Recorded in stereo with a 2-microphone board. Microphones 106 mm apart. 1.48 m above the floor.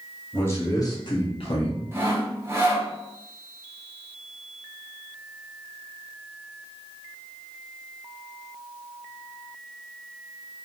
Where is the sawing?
20° right (ahead or behind), 0.7 m.